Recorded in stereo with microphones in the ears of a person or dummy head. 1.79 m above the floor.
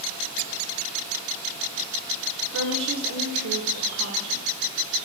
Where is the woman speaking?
85° right, 3 m; by 4.4 s 70° right (ahead or behind), 2.5 m.